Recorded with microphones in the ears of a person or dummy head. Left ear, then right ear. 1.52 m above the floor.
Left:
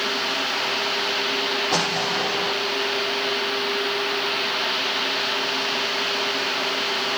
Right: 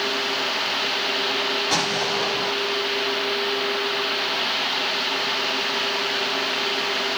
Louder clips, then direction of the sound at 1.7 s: Even; 70° right (ahead or behind).